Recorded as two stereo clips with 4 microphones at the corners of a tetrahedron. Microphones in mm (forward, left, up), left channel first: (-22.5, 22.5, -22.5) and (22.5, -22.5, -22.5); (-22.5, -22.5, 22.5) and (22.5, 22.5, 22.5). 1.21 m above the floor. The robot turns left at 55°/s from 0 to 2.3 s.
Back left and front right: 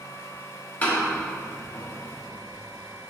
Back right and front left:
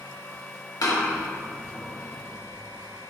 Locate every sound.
0.8 s a door slam: 160° right, 1.5 m; by 3.1 s 115° left, 1.5 m